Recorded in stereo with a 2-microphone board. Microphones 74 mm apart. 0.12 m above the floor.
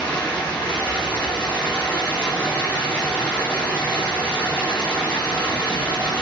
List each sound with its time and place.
0.0 s running water: 15° left (ahead or behind), 1.9 m